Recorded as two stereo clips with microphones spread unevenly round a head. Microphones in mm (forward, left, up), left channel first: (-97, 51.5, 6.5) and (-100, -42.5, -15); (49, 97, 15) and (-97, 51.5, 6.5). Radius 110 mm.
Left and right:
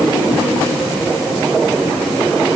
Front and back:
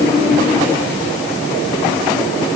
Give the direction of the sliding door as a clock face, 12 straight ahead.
No sliding door in this recording.